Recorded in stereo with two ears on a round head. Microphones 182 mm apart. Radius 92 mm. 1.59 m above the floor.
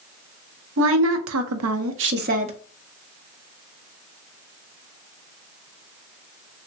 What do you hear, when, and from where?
0.8 s a woman speaking: 70° right (ahead or behind), 0.9 m; by 2.6 s 30° right (ahead or behind), 0.5 m